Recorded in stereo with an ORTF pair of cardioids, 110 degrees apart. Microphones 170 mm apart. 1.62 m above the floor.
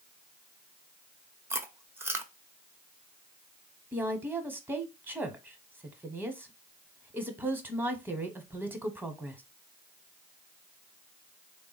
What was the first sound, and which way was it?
Chewing, 15° right.